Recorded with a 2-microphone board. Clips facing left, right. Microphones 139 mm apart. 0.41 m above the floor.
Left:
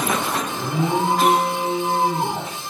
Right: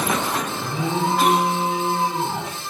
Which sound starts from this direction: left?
An alarm, at 0.6 s.